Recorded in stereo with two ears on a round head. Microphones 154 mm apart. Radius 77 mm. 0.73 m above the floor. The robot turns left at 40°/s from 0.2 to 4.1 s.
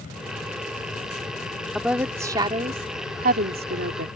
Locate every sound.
1.8 s a woman speaking: straight ahead; by 4.1 s 95° right